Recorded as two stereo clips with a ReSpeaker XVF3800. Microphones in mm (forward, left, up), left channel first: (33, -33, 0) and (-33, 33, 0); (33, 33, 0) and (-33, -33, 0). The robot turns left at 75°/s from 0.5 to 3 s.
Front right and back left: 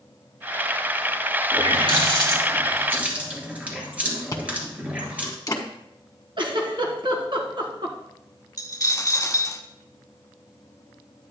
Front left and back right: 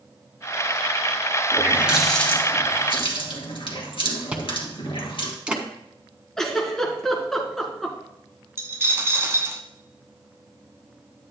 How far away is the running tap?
About 2.5 m.